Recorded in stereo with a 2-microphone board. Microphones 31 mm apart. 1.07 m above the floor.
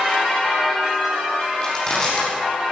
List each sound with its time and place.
1.6 s crushing: 20° left (ahead or behind), 9.5 m